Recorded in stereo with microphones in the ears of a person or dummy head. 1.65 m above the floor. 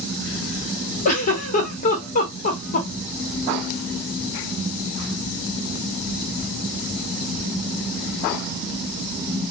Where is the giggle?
40° left (ahead or behind), 1.1 m.